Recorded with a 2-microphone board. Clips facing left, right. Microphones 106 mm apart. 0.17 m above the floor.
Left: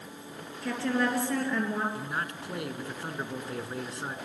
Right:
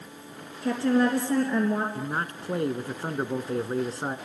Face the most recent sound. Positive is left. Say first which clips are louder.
# right 4 dB
turn(degrees=-35)  # may be behind; listen again after turning